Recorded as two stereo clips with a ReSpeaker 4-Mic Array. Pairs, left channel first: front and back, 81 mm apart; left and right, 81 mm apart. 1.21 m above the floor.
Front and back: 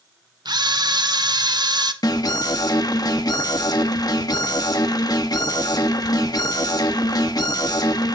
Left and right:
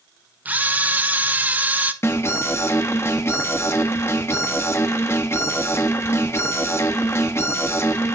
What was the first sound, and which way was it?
A camera shutter, 160° right.